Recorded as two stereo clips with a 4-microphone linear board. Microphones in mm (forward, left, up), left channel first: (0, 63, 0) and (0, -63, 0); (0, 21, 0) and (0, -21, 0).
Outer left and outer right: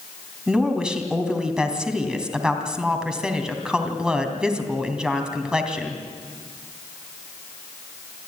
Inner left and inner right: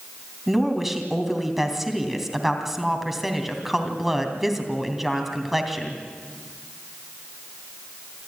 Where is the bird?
I don't hear a bird.